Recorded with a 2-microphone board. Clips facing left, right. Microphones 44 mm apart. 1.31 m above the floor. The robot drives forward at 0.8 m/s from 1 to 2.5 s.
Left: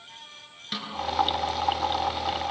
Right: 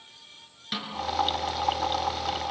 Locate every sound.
0.7 s a snare drum: 5° right (ahead or behind), 5.5 m